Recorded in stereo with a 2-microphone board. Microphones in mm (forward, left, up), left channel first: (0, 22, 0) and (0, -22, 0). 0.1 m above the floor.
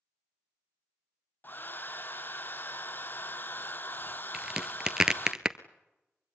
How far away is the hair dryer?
About 0.6 m.